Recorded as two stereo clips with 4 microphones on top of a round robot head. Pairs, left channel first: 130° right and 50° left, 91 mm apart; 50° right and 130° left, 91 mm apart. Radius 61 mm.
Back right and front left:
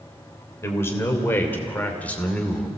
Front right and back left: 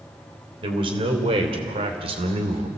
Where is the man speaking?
165° left, 3.5 m; by 2.7 s 145° left, 2.5 m.